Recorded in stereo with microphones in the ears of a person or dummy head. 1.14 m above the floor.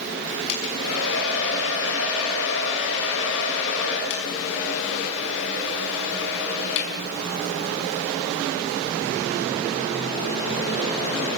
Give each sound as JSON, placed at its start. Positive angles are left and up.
{"t": 0.5, "sound": "a hair dryer", "side_deg": 70, "distance_m": 6.0}